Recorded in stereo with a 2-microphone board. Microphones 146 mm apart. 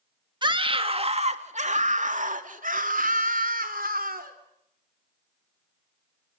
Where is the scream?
30° right (ahead or behind), 1.9 m; by 4.3 s 70° right (ahead or behind), 4 m.